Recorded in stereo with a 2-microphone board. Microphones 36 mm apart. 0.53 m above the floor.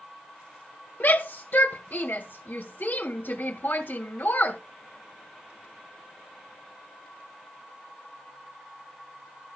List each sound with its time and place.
1.0 s a shout: 55° left (ahead or behind), 2 m